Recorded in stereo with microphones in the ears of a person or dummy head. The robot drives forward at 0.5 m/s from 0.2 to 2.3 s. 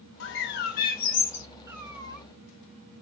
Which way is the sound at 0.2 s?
70° left (ahead or behind).